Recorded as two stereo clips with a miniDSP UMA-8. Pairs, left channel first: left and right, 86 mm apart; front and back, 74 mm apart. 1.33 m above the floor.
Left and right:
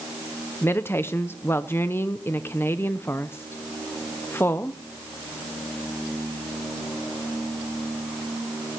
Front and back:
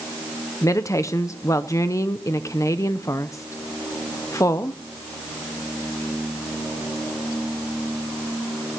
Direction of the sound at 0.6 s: 35° left.